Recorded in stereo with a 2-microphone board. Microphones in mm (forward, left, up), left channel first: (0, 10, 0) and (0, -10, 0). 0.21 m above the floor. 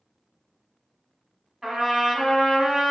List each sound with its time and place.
1.6 s a trumpet: 15° right (ahead or behind), 1.3 m